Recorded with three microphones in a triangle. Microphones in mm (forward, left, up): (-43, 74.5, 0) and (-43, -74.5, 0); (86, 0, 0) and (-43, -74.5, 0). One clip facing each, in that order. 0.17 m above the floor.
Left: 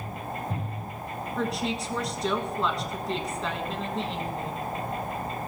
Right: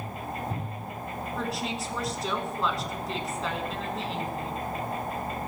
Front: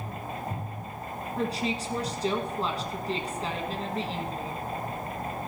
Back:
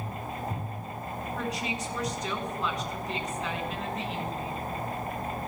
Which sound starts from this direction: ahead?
A woman speaking, at 1.4 s.